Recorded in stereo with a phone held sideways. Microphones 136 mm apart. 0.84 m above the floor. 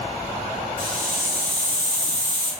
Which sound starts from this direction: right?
A hiss, at 0.8 s.